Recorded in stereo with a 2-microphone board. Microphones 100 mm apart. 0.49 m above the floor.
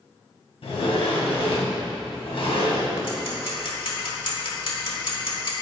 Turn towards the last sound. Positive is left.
turn(degrees=65)  # may be behind; listen again after turning